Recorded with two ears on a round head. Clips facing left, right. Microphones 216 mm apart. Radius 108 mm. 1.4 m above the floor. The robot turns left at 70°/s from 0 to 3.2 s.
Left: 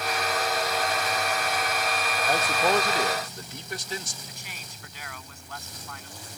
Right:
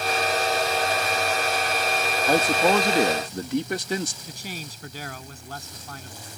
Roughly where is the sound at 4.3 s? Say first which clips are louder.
Right 9 dB; right.